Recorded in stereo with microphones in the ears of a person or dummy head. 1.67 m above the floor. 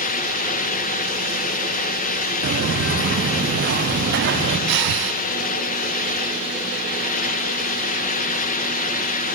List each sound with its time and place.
2.4 s footsteps: 65° right (ahead or behind), 6 m; by 4.6 s 60° right (ahead or behind), 8.5 m
4.7 s breathing: 60° right (ahead or behind), 0.8 m